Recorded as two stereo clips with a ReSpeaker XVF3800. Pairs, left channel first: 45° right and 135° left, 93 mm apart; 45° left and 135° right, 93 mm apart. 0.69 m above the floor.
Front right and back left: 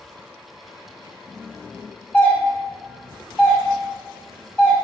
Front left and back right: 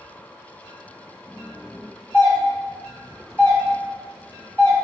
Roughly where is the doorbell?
Ahead.